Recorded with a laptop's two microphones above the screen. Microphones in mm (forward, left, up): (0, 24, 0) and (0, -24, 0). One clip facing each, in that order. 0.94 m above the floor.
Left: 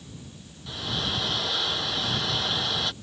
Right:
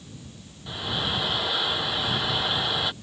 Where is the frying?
15° right (ahead or behind).